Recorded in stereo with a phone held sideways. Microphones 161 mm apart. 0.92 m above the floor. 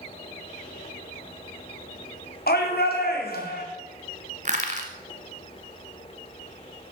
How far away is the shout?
About 2 m.